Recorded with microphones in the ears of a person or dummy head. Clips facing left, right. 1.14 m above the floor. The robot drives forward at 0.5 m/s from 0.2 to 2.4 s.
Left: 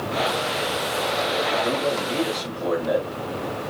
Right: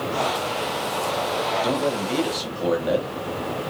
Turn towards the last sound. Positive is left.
turn(degrees=-45)  # may be behind; listen again after turning